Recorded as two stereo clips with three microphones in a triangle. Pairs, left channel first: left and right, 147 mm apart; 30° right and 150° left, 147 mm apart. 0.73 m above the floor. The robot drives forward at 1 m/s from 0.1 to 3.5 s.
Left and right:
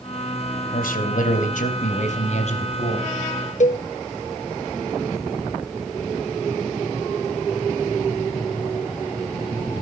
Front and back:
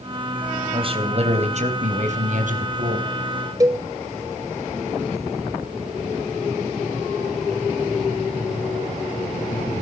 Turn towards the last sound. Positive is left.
turn(degrees=90)